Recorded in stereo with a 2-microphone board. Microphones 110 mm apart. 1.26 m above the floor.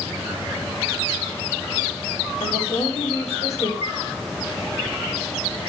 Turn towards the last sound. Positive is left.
turn(degrees=70)  # may be behind; listen again after turning